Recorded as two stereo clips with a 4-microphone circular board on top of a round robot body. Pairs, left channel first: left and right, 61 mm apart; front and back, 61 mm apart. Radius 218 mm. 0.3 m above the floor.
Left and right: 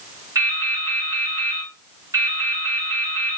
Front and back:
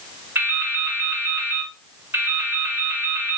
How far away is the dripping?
About 2 m.